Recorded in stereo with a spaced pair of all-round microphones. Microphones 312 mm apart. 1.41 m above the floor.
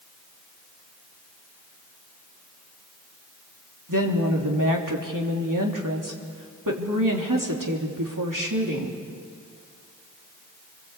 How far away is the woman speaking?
About 3 m.